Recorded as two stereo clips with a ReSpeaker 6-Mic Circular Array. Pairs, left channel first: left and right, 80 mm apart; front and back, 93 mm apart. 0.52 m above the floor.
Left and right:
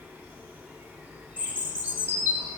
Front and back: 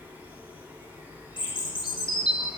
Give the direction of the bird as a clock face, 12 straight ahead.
1 o'clock.